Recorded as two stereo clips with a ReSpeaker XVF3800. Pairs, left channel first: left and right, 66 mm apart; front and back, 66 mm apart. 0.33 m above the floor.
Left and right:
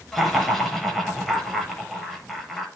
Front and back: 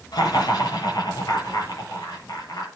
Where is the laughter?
5° left, 8 m.